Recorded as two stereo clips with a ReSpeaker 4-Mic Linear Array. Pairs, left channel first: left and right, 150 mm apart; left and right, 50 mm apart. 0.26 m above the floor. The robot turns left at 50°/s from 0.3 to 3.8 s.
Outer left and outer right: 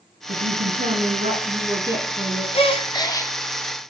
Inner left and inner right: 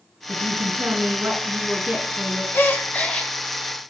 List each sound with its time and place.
0.3 s a woman speaking: 80° right, 2.5 m; by 2.4 s 175° left, 2.5 m
2.5 s a gasp: 60° left, 1.7 m; by 3.3 s 25° left, 1.7 m